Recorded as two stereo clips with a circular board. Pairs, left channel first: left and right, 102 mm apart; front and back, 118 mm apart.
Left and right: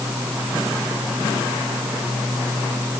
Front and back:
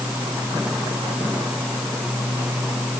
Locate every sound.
Only background noise.